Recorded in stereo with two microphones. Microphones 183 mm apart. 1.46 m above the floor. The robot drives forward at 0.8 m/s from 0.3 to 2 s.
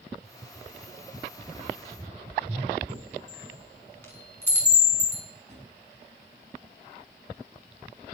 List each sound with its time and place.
2.9 s a chime: 10° left (ahead or behind), 6 m
5.5 s a drawer: 35° right (ahead or behind), 6.5 m